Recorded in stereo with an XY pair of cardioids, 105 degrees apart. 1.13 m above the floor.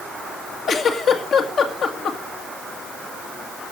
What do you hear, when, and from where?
0.7 s a giggle: 60° left, 2 m